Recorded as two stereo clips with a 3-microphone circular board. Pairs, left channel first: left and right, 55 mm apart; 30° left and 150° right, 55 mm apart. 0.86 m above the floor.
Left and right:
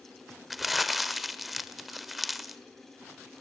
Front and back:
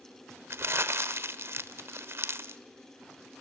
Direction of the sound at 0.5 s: Straight behind.